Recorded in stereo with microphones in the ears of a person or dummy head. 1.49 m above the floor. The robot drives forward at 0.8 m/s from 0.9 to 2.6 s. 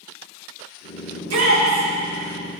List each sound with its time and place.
1.1 s a shout: 85° right, 3 m; by 1.9 s 80° right, 3 m